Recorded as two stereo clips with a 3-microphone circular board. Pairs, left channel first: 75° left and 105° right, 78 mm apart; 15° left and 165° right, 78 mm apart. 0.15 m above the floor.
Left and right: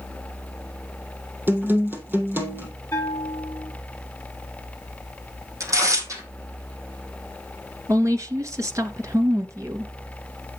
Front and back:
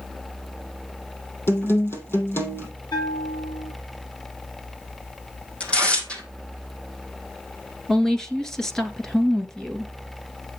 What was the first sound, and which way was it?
A guitar, 45° right.